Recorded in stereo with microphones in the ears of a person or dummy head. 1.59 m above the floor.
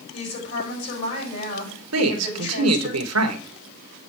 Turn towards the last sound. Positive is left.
turn(degrees=-80)